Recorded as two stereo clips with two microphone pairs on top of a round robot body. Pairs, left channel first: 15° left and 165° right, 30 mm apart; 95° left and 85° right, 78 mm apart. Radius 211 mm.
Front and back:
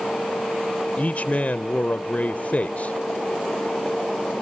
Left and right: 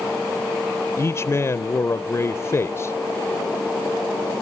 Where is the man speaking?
55° left, 0.7 m.